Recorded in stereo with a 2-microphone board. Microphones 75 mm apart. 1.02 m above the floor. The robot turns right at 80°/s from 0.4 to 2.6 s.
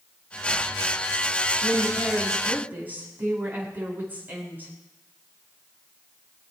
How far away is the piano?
No piano in this recording.